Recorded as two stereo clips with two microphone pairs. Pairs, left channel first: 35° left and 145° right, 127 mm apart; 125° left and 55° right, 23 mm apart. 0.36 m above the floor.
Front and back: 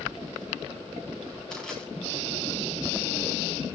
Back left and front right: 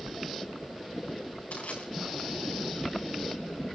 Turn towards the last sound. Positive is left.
turn(degrees=120)